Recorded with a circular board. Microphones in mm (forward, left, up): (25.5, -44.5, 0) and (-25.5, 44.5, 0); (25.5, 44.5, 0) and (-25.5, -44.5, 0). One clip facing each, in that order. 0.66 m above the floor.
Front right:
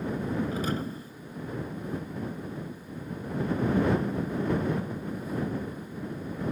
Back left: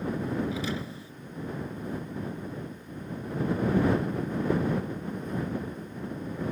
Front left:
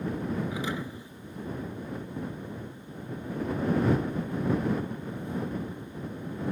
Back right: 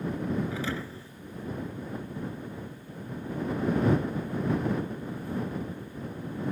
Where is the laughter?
I don't hear laughter.